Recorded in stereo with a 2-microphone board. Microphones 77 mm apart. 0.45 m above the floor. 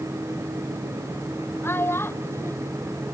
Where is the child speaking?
30° left (ahead or behind).